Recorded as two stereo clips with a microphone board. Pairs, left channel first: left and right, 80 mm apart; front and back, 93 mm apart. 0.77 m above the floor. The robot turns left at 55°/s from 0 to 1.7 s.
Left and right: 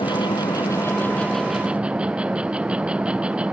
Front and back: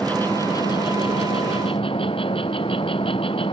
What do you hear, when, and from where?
0.0 s an insect: 80° left; by 3.5 s 15° right